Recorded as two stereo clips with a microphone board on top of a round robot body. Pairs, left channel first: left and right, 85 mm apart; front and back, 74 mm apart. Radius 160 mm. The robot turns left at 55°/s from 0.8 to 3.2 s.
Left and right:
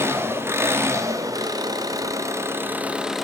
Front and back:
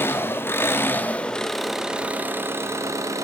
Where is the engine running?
45° right, 1.4 m; by 3.2 s 175° right, 1.4 m.